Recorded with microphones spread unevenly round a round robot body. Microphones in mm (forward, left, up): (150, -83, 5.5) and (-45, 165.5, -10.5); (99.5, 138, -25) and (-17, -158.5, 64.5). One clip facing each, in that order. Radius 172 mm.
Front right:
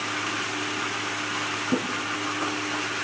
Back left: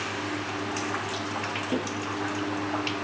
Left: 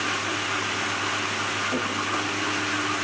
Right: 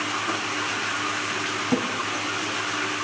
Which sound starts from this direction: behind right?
A drawer, at 1.7 s.